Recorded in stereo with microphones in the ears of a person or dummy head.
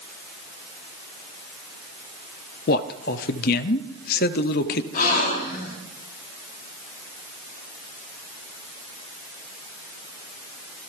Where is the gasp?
50° left (ahead or behind), 4 m.